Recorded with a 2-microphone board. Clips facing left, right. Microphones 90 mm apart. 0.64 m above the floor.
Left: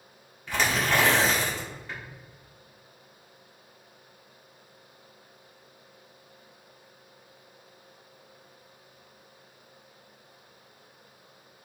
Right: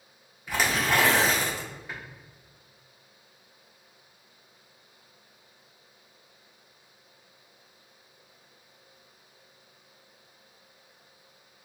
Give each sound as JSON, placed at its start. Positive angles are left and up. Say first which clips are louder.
{"t": 0.5, "sound": "tearing paper", "louder": "even", "side_deg": -10, "distance_m": 1.5}